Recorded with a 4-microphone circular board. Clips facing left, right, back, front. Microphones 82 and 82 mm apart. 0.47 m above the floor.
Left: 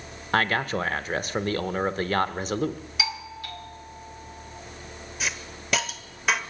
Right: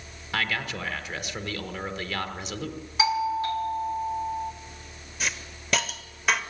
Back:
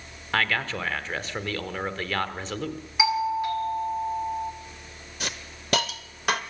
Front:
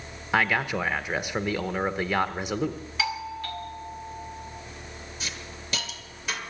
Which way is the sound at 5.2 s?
Straight behind.